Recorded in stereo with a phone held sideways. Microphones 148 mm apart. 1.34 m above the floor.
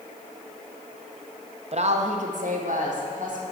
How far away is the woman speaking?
About 0.7 m.